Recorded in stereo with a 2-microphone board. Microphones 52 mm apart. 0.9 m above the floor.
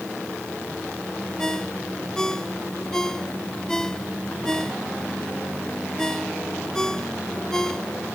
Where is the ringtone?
10° left (ahead or behind).